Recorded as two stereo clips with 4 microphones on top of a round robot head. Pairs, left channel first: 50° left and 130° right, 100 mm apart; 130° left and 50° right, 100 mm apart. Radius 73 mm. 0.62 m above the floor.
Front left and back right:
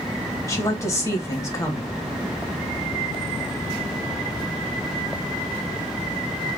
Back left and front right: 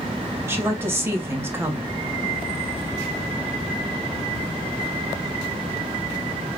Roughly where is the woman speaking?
Ahead.